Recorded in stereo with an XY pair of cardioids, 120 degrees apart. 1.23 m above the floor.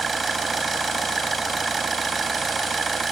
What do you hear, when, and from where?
0.0 s an engine running: 25° right